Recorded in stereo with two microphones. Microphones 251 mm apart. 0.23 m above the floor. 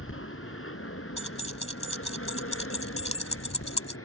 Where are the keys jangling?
25° left (ahead or behind).